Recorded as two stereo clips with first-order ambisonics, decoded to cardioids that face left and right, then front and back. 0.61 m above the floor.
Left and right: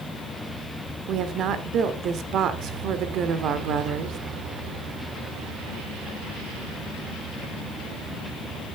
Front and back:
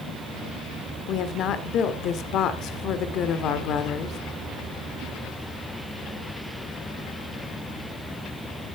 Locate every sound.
1.1 s a woman speaking: 45° right, 1.3 m